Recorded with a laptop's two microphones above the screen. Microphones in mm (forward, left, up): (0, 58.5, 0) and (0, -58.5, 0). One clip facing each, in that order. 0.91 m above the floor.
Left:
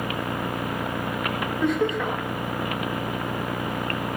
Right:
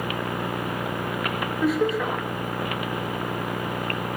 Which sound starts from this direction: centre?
Laughter, at 1.6 s.